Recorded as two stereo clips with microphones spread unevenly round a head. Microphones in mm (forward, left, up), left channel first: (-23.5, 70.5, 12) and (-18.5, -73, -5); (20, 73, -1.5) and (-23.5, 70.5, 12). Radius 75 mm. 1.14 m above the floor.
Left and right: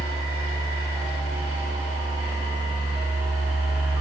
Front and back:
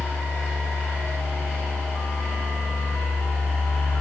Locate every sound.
0.0 s a fan: 15° right, 3.5 m